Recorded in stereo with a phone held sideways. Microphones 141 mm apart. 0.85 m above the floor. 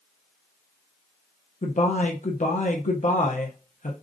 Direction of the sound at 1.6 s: 60° left (ahead or behind).